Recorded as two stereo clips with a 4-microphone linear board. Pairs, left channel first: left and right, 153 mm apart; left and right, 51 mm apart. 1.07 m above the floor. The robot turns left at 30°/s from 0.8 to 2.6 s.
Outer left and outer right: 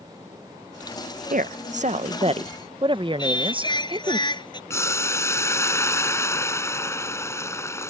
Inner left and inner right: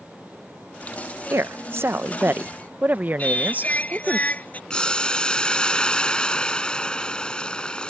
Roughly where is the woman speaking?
Right.